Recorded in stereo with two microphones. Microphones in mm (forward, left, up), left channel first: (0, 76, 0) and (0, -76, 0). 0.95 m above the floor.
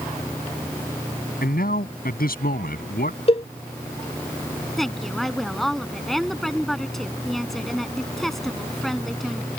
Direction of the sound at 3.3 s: 40° left (ahead or behind).